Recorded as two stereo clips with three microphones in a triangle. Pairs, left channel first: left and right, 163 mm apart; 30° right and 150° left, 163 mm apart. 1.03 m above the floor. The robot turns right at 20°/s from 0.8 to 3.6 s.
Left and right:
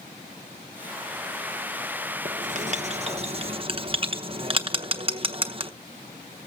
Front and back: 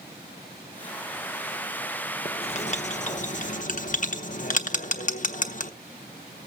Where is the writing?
70° right, 0.9 m; by 5.7 s 45° right, 0.9 m.